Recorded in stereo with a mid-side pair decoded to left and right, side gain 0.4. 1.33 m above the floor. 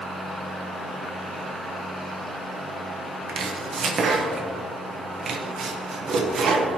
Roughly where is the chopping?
Ahead right.